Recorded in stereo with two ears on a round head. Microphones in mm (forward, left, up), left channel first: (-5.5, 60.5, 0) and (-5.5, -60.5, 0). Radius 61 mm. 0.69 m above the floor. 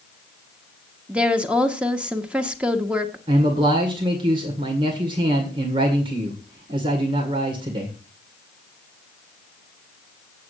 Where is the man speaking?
40° right (ahead or behind), 1.9 m.